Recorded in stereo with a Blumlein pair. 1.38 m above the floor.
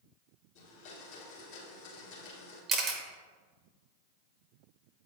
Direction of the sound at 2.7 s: 25° right.